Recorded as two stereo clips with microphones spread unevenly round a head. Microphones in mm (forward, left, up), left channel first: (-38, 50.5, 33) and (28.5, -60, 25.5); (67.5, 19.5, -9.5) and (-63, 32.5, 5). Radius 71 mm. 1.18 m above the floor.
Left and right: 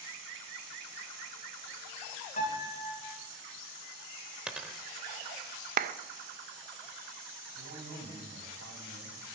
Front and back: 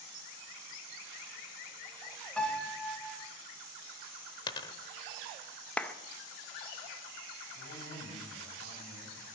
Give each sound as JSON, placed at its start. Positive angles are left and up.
{"t": 2.4, "sound": "a piano", "azimuth_deg": 80, "distance_m": 3.0}
{"t": 4.5, "sound": "a dropped coin", "azimuth_deg": 25, "distance_m": 0.9}
{"t": 5.8, "sound": "a clap", "azimuth_deg": -90, "distance_m": 0.6}
{"t": 7.5, "sound": "a man speaking", "azimuth_deg": -45, "distance_m": 7.0}